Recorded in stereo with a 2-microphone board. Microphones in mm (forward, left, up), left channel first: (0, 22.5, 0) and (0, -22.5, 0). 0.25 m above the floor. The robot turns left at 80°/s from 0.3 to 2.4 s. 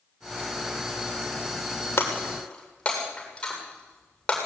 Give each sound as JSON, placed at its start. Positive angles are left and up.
{"t": 2.0, "sound": "breaking glass", "side_deg": 55, "distance_m": 7.5}